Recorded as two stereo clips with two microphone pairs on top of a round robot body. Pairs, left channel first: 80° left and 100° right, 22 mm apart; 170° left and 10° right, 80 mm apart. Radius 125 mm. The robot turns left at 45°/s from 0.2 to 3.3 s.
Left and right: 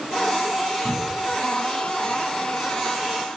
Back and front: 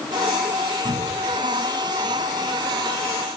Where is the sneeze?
No sneeze in this recording.